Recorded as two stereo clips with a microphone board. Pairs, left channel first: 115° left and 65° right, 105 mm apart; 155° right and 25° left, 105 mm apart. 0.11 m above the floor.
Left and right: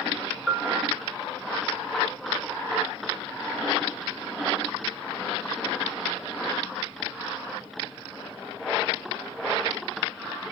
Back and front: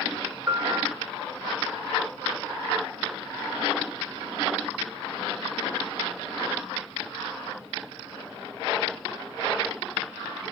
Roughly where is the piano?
Ahead left.